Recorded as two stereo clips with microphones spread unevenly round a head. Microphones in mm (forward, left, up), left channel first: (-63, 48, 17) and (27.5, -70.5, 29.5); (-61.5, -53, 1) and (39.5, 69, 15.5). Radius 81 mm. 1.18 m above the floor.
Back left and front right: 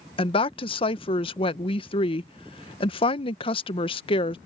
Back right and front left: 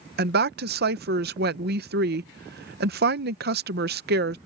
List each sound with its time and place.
0.2 s a woman speaking: 75° left